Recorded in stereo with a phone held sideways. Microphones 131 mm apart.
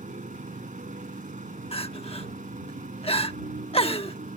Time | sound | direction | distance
0.0 | a motorcycle | 75° right (ahead or behind) | ?
1.7 | crying | 45° left (ahead or behind) | ?